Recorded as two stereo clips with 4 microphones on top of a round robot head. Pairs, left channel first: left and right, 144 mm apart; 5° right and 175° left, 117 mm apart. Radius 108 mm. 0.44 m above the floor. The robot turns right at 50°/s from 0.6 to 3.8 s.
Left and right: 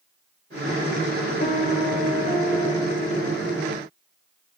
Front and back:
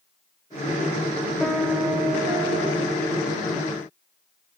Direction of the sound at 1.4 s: 80° left.